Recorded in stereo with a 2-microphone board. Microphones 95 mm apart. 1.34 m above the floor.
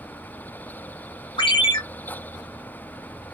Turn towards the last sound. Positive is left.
turn(degrees=65)  # may be behind; listen again after turning